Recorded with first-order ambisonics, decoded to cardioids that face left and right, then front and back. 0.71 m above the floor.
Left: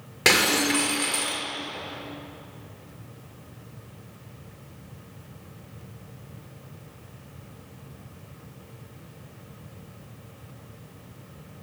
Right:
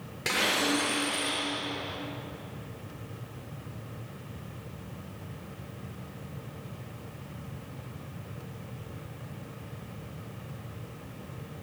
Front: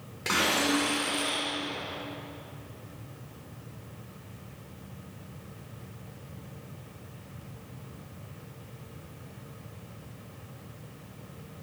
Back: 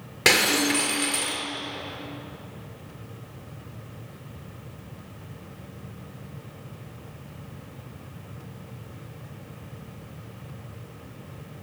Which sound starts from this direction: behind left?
Breaking glass, at 0.2 s.